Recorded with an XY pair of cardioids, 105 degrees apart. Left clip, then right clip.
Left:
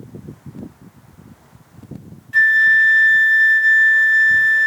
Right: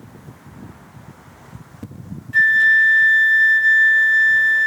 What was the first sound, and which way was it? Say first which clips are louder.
A flute: left 1 dB; 15° left.